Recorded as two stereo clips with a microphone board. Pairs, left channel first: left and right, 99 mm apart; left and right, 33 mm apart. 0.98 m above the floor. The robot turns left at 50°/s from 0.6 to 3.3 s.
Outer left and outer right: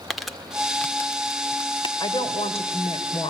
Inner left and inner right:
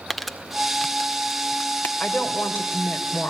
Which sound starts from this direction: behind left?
A woman speaking, at 2.0 s.